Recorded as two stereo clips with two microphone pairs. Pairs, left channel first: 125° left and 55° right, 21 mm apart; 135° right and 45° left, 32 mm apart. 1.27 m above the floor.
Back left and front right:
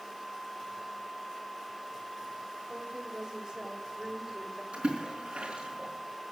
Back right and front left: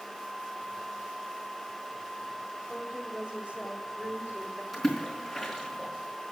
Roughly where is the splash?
Ahead right.